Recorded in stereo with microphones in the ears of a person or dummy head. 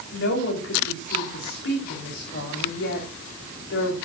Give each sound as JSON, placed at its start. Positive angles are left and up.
{"t": 0.1, "sound": "a woman speaking", "side_deg": 55, "distance_m": 4.5}